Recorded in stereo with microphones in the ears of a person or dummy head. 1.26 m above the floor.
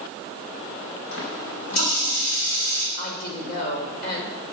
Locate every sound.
1.1 s a running tap: 80° left, 5 m
3.0 s a woman speaking: 60° left (ahead or behind), 5.5 m